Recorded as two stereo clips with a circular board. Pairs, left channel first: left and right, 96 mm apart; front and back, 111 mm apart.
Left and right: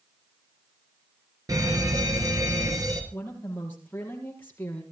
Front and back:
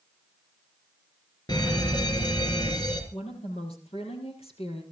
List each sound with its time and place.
1.5 s a fire alarm: 45° right, 4.5 m
3.1 s a woman speaking: 20° left, 5 m